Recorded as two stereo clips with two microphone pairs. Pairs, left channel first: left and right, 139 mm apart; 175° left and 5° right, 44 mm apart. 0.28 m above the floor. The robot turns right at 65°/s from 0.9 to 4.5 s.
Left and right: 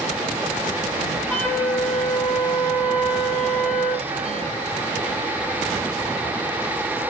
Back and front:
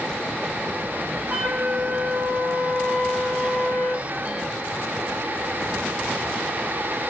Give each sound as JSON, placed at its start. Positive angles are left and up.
{"t": 1.3, "sound": "a flute", "azimuth_deg": 10, "distance_m": 0.8}